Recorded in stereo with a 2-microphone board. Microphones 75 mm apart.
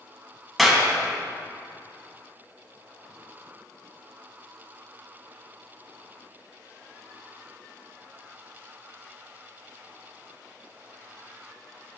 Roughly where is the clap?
Centre.